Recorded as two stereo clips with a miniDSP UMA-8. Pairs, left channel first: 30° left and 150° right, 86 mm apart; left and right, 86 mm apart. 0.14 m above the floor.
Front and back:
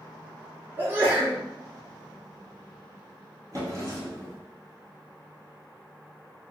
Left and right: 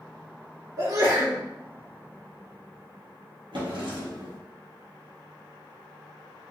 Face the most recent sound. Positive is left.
turn(degrees=-105)